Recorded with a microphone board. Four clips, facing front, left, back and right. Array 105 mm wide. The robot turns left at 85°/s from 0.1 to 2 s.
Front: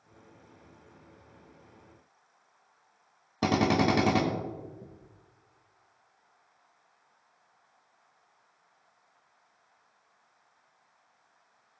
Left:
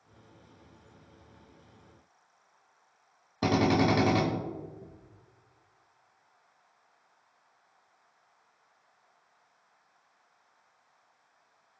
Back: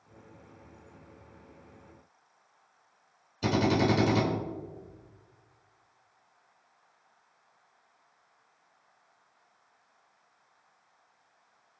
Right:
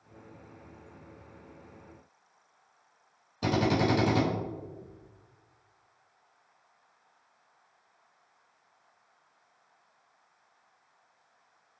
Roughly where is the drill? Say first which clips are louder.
Left 2 dB, front 1 dB; ahead left.